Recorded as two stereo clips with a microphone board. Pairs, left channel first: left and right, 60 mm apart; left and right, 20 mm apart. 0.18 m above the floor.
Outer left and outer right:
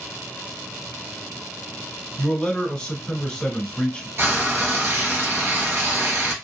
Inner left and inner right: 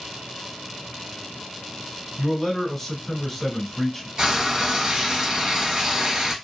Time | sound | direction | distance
2.2 | a man speaking | 15° left (ahead or behind) | 1.1 m
4.2 | frying | 45° right (ahead or behind) | 1.5 m